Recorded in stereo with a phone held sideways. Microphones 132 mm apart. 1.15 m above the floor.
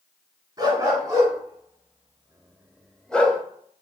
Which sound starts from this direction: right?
A dog barking, at 0.6 s.